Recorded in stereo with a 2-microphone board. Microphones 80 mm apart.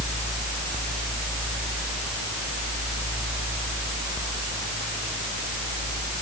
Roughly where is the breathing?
I don't hear breathing.